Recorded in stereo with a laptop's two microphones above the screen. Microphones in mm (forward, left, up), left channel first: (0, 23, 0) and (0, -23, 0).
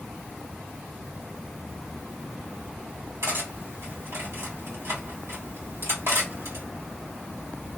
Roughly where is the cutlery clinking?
Right.